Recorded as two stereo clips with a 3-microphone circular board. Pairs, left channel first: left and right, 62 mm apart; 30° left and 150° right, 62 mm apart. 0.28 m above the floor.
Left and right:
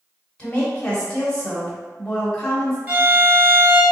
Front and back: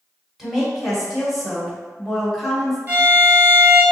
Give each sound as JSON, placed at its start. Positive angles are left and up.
{"t": 0.4, "sound": "a woman speaking", "azimuth_deg": 135, "distance_m": 1.0}
{"t": 2.9, "sound": "a violin", "azimuth_deg": -120, "distance_m": 1.3}